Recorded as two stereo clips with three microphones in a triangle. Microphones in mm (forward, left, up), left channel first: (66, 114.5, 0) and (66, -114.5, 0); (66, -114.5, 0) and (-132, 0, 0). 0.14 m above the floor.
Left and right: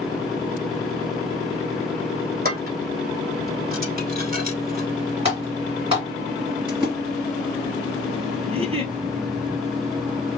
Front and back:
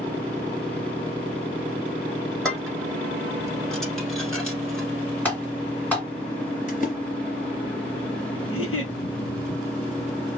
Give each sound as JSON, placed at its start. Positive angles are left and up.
{"t": 2.5, "sound": "dishes clattering", "azimuth_deg": -115, "distance_m": 1.2}
{"t": 5.2, "sound": "typing on a keyboard", "azimuth_deg": -105, "distance_m": 1.8}
{"t": 6.7, "sound": "a splash", "azimuth_deg": -35, "distance_m": 1.9}
{"t": 8.5, "sound": "a giggle", "azimuth_deg": -25, "distance_m": 1.1}